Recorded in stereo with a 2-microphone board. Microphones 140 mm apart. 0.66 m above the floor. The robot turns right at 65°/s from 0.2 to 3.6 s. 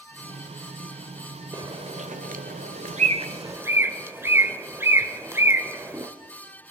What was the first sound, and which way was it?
A bird, 25° right (ahead or behind).